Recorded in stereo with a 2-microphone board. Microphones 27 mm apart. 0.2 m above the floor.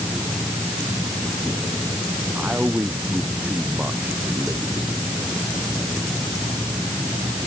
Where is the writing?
I don't hear writing.